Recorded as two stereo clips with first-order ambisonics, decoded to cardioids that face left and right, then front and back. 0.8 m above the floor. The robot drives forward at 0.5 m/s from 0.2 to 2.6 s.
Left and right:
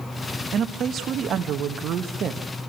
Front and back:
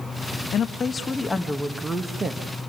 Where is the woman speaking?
50° right, 1.2 m; by 2.4 s 125° right, 1.1 m.